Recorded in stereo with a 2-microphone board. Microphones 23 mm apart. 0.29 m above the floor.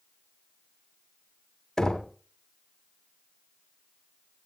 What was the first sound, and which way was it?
Knocking, 20° left (ahead or behind).